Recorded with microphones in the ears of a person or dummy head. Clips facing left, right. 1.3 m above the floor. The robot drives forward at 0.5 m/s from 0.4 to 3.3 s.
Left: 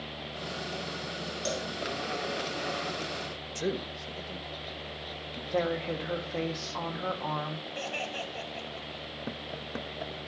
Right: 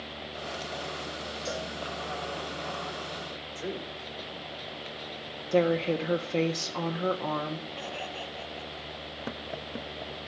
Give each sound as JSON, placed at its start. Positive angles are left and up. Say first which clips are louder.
{"t": 1.4, "sound": "a cowbell", "louder": "left 2 dB", "side_deg": 75, "distance_m": 3.0}
{"t": 3.5, "sound": "a man speaking", "louder": "left 4 dB", "side_deg": 65, "distance_m": 1.4}
{"t": 5.5, "sound": "a woman speaking", "louder": "right 6 dB", "side_deg": -35, "distance_m": 1.2}
{"t": 7.8, "sound": "laughter", "louder": "left 1 dB", "side_deg": 75, "distance_m": 7.0}